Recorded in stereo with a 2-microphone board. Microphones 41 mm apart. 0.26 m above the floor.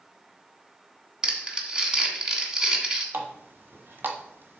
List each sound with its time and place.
1.2 s crumpling: 15° right (ahead or behind), 1.4 m
3.1 s a running tap: 55° right (ahead or behind), 1.3 m